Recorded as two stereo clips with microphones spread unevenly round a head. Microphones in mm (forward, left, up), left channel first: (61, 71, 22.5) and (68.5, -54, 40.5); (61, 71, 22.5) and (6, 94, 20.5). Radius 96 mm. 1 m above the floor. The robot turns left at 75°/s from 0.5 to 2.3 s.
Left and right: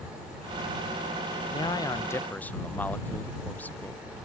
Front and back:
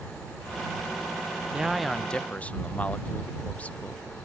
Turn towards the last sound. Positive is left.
turn(degrees=35)